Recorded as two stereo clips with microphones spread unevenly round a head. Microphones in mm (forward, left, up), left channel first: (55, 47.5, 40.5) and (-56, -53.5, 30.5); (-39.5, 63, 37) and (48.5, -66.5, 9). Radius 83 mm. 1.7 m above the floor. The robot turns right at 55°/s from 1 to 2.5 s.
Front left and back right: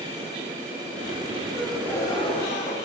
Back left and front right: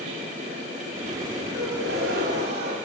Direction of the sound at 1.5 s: 55° right.